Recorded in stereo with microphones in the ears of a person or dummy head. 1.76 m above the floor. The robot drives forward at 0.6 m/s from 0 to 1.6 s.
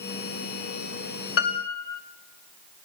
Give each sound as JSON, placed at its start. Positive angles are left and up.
{"t": 1.4, "sound": "a piano", "side_deg": 55, "distance_m": 0.8}